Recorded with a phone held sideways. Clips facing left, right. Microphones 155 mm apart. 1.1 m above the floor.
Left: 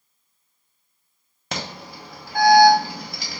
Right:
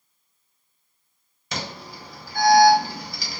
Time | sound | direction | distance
1.5 | an alarm | 65° left (ahead or behind) | 1.2 m